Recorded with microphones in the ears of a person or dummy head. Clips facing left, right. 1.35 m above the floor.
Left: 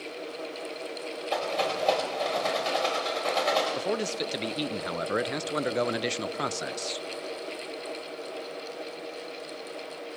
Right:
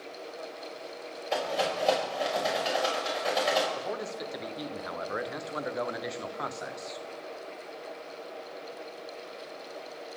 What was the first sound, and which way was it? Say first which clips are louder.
A rattle: even; 10° right (ahead or behind).